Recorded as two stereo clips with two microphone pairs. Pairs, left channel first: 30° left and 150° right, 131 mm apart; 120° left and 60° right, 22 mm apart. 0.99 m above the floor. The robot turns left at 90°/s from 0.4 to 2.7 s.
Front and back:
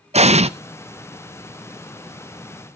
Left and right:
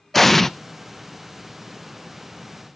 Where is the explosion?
170° right, 0.5 m; by 0.5 s straight behind, 0.5 m.